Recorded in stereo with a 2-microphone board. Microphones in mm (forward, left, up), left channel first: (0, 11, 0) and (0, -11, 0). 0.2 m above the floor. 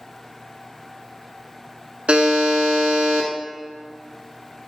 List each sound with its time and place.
2.1 s a buzzer: 65° right (ahead or behind), 0.7 m